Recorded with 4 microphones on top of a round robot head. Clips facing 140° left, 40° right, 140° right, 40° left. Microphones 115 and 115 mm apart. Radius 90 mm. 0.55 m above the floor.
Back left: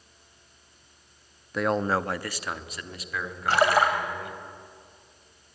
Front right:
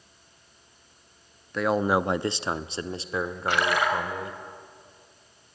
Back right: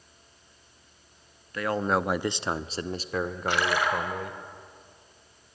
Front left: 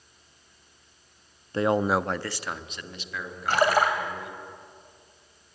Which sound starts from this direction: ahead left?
A man speaking, at 1.5 s.